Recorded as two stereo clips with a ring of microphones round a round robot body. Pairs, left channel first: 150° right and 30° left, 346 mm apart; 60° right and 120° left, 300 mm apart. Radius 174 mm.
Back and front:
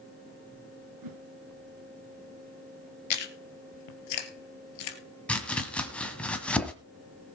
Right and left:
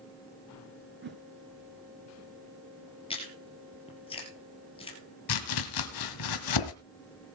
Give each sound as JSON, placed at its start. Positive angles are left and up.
{"t": 1.0, "sound": "a whoosh", "azimuth_deg": 65, "distance_m": 2.5}
{"t": 3.1, "sound": "chewing", "azimuth_deg": -135, "distance_m": 2.5}
{"t": 5.3, "sound": "chopping", "azimuth_deg": -65, "distance_m": 1.8}